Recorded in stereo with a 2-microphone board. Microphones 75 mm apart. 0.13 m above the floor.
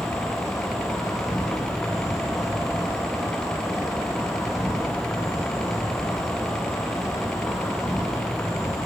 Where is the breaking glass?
No breaking glass in this recording.